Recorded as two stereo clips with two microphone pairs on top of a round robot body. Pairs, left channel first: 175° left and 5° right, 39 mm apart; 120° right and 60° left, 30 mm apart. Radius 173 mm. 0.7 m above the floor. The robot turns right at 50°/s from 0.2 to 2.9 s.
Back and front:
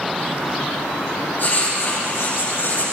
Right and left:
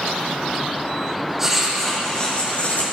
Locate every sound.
1.4 s writing: 135° left, 9 m; by 2.8 s 150° right, 9 m